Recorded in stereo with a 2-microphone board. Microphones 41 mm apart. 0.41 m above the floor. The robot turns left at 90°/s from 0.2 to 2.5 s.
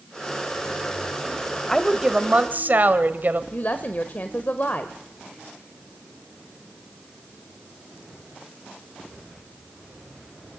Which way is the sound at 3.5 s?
40° left (ahead or behind).